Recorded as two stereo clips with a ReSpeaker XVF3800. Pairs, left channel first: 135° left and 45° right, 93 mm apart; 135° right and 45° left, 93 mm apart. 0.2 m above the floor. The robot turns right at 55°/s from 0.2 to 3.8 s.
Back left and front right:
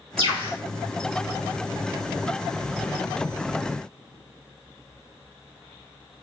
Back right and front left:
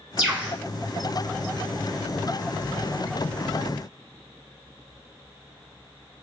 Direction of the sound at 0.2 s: 45° right.